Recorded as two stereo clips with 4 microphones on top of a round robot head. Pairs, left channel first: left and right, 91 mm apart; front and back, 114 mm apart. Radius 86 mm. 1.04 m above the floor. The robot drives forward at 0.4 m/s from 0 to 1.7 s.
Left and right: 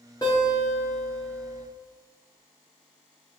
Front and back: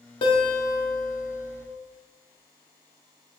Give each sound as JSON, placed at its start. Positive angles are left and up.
{"t": 0.2, "sound": "a guitar", "azimuth_deg": 25, "distance_m": 0.6}